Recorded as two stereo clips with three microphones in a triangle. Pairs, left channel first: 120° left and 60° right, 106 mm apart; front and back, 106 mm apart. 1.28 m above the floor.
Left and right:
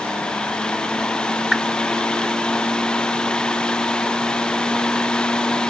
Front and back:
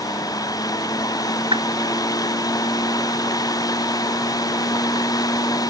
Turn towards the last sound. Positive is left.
turn(degrees=-145)